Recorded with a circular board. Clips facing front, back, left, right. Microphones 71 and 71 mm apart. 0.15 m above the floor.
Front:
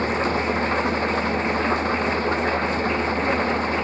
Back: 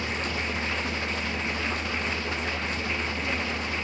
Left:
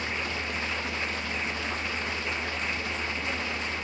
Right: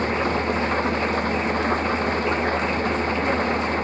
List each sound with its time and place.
0.0 s an engine running: 45° right